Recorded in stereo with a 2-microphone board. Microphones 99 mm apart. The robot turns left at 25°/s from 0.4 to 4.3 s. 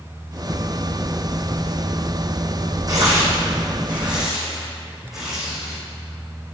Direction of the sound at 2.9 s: 40° right (ahead or behind).